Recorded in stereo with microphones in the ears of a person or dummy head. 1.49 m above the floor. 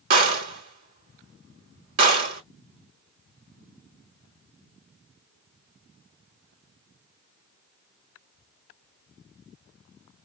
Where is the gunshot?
50° right (ahead or behind), 1.0 m.